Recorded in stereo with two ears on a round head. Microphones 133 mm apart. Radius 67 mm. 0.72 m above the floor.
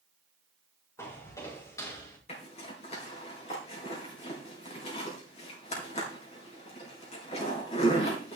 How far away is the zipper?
About 5 m.